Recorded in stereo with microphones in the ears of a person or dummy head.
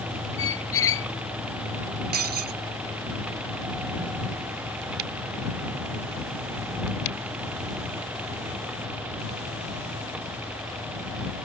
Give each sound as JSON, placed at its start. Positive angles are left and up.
{"t": 0.4, "sound": "a squeak", "side_deg": 15}
{"t": 2.1, "sound": "breaking glass", "side_deg": -50}